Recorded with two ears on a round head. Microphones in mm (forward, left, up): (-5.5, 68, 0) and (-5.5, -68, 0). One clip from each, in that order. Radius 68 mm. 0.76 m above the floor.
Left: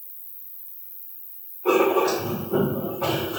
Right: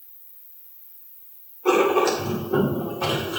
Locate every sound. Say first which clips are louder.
0.0 s an insect: left 4 dB; 60° left (ahead or behind), 1.4 m
1.6 s writing: right 1 dB; 70° right (ahead or behind), 2 m